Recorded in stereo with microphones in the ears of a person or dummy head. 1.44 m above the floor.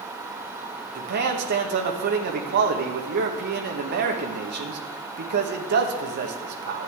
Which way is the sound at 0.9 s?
55° right (ahead or behind).